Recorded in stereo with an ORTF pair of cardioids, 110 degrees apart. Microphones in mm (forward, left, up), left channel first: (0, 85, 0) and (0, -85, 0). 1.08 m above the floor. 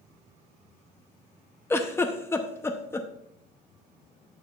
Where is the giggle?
15° left, 0.7 m.